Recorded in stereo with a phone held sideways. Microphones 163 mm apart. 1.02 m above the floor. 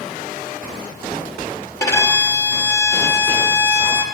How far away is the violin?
About 0.9 m.